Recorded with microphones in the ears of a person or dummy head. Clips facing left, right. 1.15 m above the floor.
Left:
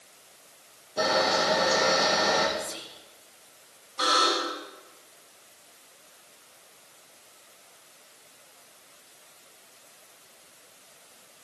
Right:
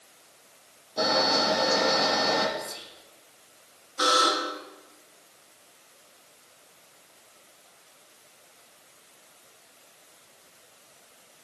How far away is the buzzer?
About 2 m.